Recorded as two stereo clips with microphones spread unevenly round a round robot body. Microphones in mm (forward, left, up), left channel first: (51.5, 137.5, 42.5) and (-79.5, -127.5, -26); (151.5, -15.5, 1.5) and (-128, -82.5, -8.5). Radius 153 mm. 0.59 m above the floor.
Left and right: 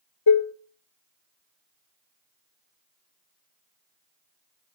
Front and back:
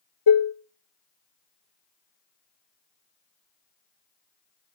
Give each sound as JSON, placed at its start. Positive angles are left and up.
{"t": 0.3, "sound": "dishes clattering", "azimuth_deg": 25, "distance_m": 1.0}